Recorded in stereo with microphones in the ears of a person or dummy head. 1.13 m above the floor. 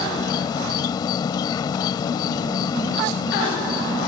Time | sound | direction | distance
0.0 | an insect | 30° left (ahead or behind) | ?